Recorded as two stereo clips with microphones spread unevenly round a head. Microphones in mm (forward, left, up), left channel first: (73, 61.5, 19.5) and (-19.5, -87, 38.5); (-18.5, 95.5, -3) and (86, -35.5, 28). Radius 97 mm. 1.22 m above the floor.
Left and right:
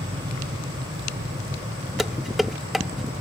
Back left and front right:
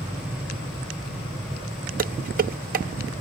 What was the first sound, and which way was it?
An aircraft, 155° right.